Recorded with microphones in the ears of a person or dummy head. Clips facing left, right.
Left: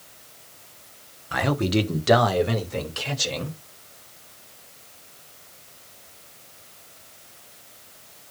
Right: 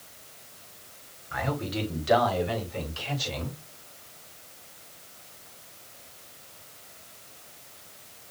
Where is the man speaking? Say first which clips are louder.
Left 8 dB; 80° left, 1.0 m.